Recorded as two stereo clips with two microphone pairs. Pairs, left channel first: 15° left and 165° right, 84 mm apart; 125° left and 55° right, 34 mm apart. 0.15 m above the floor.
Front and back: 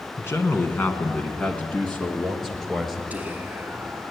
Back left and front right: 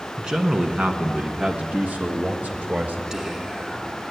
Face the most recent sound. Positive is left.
turn(degrees=-110)